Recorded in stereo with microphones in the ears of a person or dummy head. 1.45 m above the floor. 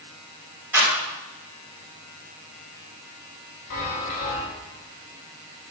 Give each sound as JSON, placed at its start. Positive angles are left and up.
{"t": 0.7, "sound": "a clap", "side_deg": -10, "distance_m": 4.5}
{"t": 3.7, "sound": "a chime", "side_deg": 40, "distance_m": 4.5}